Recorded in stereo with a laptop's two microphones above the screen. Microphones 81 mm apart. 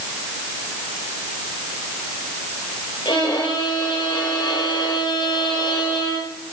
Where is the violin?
65° left (ahead or behind), 8 m.